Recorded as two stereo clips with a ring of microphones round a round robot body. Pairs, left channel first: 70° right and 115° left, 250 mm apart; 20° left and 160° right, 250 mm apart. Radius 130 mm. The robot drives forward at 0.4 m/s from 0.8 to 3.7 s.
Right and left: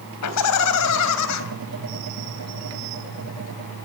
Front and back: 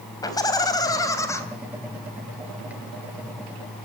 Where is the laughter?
55° right, 4 m.